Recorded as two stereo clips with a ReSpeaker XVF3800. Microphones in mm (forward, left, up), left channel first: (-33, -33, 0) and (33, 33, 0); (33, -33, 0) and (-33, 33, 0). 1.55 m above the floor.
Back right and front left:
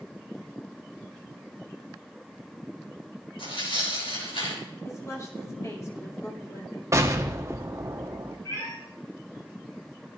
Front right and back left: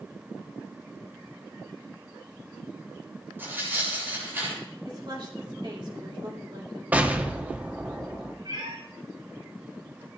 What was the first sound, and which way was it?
Tearing paper, 155° right.